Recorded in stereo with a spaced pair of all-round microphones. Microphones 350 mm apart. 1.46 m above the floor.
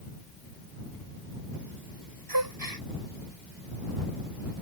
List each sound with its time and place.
2.3 s a gasp: 85° right